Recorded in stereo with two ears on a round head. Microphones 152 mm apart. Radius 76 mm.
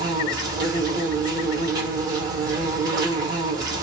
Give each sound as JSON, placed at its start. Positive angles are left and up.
{"t": 0.0, "sound": "an insect", "side_deg": -25, "distance_m": 1.0}